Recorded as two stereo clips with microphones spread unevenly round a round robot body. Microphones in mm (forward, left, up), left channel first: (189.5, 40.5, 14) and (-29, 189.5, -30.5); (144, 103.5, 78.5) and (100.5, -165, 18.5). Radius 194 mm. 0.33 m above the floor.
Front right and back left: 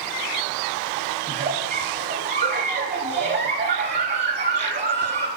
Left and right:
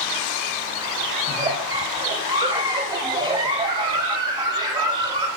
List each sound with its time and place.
1.3 s a giggle: 160° right, 0.5 m